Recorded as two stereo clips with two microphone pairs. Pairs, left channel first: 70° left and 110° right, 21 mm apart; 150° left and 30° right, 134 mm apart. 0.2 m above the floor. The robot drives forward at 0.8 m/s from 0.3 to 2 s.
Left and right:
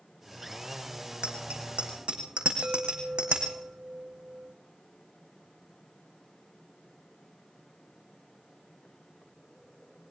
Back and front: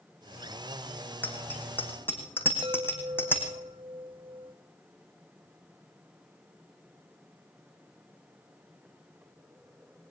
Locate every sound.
1.2 s a bicycle bell: 130° right, 7.5 m; by 3.6 s 135° right, 8 m
2.6 s a chime: 80° right, 1.8 m